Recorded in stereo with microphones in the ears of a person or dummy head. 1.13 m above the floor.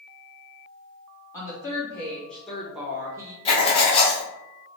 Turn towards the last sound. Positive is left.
turn(degrees=35)  # may be behind; listen again after turning